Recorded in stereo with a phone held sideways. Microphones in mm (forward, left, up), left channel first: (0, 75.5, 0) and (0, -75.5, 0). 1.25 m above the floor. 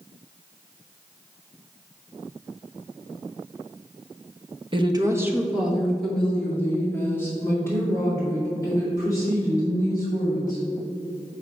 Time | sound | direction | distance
4.7 | a woman speaking | 35° right (ahead or behind) | 0.9 m